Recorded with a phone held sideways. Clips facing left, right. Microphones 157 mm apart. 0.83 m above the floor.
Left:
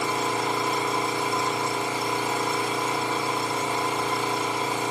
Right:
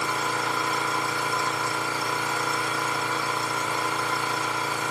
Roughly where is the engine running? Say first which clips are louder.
Left 3 dB; left.